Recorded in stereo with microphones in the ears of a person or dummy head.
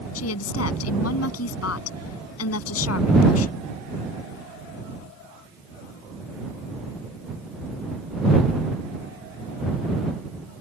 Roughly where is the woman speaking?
Left.